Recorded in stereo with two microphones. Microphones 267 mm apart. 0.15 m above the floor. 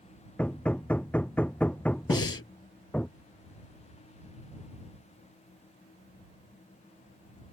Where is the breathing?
60° left (ahead or behind).